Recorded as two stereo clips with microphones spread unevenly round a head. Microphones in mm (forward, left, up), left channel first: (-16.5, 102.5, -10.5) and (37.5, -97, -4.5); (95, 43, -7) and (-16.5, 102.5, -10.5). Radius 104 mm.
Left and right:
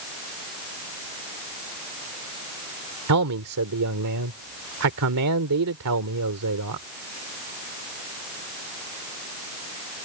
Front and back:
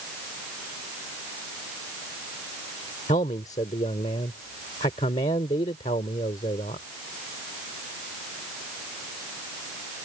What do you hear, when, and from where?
3.1 s a man speaking: 90° right